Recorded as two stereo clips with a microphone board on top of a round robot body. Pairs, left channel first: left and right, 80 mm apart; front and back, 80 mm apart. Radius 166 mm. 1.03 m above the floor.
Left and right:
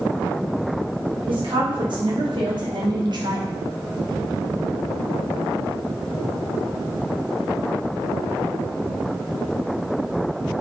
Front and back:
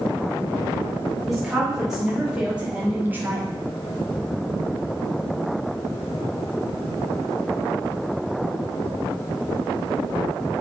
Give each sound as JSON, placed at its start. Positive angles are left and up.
{"t": 1.3, "sound": "a woman speaking", "azimuth_deg": -90, "distance_m": 5.0}